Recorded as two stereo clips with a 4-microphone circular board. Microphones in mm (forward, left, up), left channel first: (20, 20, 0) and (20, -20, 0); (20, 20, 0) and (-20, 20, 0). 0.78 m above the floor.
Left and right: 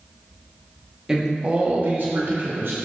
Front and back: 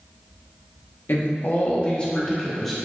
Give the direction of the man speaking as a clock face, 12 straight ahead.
12 o'clock.